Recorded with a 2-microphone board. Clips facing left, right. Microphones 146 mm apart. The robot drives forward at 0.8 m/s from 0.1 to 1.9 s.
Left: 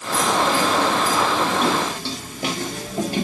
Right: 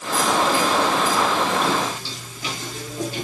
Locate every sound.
1.6 s footsteps: 65° left (ahead or behind), 5.5 m; by 3.2 s 70° left (ahead or behind), 6.5 m